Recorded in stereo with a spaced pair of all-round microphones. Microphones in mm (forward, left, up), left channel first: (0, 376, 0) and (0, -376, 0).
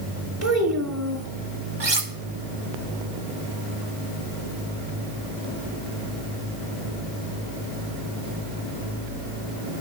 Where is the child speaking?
20° right (ahead or behind), 1.9 m.